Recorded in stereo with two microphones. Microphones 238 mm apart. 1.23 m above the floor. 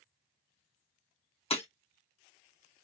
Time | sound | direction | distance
1.5 | breaking glass | 25° left (ahead or behind) | 1.0 m